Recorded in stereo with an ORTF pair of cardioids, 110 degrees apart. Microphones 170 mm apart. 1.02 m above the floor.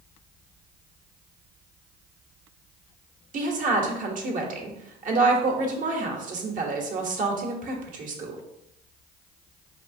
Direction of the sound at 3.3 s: 50° right.